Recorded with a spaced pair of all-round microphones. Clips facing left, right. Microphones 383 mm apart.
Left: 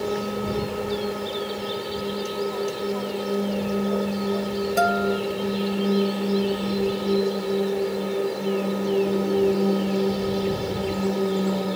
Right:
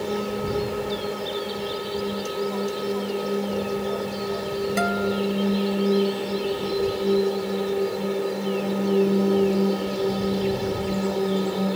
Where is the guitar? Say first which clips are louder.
Left 3 dB; 5° right (ahead or behind).